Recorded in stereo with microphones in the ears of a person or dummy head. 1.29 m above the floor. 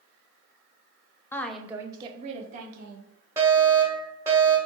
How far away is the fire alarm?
About 0.9 m.